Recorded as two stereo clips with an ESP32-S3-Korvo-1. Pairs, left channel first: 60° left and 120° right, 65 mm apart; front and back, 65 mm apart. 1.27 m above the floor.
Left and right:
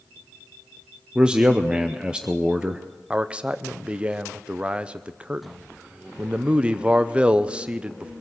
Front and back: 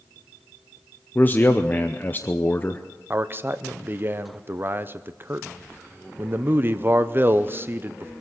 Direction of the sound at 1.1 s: 50° right.